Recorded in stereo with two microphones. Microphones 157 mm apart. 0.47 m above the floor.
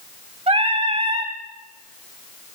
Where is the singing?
40° right (ahead or behind), 0.7 m.